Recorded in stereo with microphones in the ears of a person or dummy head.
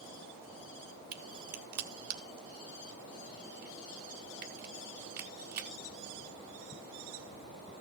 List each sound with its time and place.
1.1 s a crack: 55° right (ahead or behind), 1.8 m